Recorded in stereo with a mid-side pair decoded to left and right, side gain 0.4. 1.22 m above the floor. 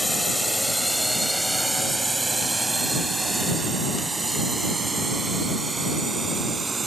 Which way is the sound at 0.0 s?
Straight ahead.